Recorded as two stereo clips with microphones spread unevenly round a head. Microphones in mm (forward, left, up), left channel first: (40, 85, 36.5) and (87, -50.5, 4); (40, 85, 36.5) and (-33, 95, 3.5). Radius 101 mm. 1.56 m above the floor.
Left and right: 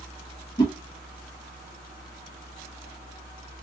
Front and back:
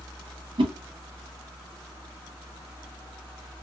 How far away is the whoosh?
About 0.8 m.